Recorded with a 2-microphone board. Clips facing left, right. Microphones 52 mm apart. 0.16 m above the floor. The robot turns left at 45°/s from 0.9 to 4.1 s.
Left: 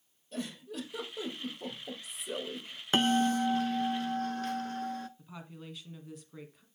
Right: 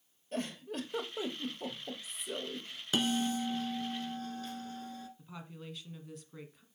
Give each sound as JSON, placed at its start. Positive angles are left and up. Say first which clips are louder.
{"t": 0.3, "sound": "a giggle", "louder": "right 1 dB", "azimuth_deg": -130, "distance_m": 2.0}
{"t": 2.9, "sound": "a bell", "louder": "left 5 dB", "azimuth_deg": 130, "distance_m": 0.5}
{"t": 5.2, "sound": "a woman speaking", "louder": "left 1 dB", "side_deg": 0, "distance_m": 1.4}